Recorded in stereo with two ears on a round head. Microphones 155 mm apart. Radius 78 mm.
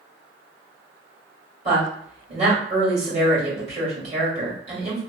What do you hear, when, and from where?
1.6 s a woman speaking: 40° right (ahead or behind), 1.8 m